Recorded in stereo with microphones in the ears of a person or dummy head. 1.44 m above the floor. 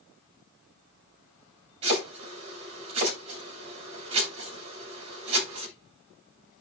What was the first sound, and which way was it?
Chopping, 35° right (ahead or behind).